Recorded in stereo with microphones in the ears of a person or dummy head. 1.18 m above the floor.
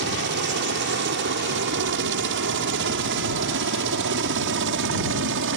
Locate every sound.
0.0 s a helicopter: 60° right (ahead or behind)